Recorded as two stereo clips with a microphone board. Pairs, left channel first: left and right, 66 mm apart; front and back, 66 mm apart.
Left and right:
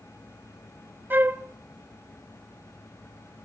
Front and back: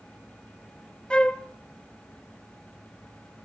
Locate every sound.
1.1 s a flute: 65° right, 1.0 m